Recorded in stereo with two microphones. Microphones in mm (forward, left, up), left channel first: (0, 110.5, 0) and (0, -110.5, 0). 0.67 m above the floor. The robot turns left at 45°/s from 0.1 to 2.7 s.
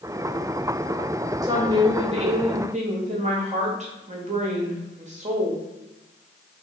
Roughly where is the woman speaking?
Ahead right.